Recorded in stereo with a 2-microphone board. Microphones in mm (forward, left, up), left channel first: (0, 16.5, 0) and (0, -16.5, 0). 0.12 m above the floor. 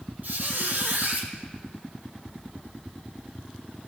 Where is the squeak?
55° right (ahead or behind), 1.7 m.